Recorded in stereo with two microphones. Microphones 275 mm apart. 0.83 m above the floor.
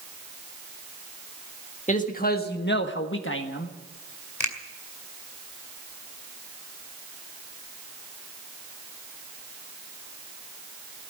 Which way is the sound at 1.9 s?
25° left (ahead or behind).